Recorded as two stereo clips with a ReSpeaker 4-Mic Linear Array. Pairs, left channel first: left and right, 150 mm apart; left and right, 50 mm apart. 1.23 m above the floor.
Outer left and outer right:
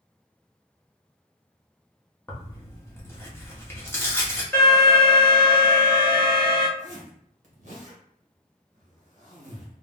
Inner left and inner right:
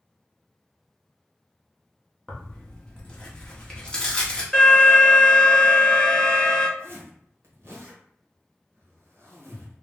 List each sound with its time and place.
2.3 s tearing paper: 15° left (ahead or behind), 0.8 m
4.5 s an alarm: 5° left (ahead or behind), 1.6 m
6.8 s a zipper: 55° right (ahead or behind), 1.0 m